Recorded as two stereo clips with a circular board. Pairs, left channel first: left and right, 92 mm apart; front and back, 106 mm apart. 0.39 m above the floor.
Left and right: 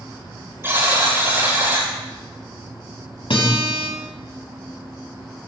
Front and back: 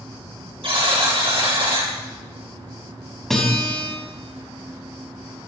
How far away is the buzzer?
About 6 m.